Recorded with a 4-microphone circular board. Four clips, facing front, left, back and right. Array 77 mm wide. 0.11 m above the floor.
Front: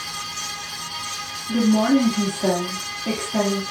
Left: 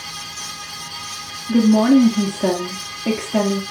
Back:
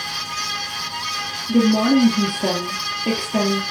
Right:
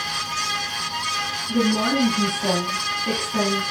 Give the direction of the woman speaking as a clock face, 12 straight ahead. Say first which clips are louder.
Left 8 dB, back 2 dB; 8 o'clock.